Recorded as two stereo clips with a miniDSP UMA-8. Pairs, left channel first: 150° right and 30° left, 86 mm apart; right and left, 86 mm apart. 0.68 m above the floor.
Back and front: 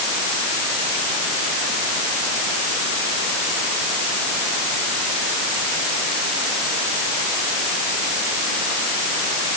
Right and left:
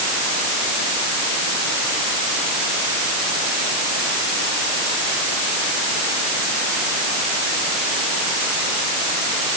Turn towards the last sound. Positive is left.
No sound to turn to.